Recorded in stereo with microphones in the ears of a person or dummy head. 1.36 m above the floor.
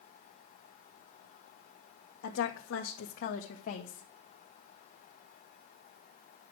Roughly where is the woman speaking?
Left.